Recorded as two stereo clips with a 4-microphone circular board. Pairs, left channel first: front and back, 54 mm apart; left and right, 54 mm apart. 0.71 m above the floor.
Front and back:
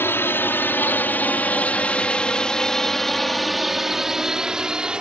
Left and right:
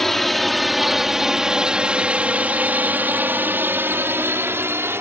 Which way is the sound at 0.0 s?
10° left.